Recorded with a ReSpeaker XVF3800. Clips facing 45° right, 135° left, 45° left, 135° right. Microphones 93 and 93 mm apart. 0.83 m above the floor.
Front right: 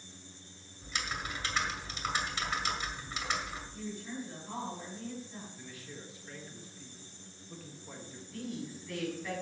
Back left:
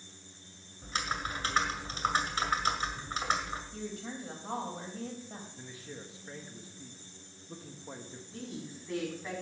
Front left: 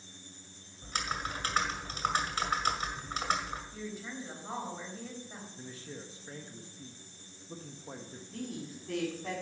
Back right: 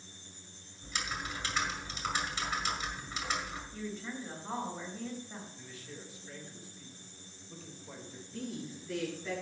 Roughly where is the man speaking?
Left.